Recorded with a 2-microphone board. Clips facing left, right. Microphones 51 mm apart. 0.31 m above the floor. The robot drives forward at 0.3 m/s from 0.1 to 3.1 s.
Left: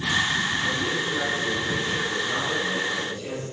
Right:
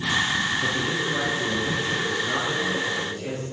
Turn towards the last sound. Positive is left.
turn(degrees=-45)  # may be behind; listen again after turning